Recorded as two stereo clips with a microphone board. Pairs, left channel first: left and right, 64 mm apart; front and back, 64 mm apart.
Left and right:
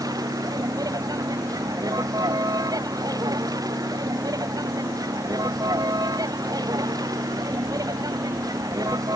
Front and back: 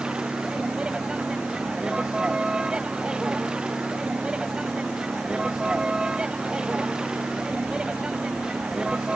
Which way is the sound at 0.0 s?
105° right.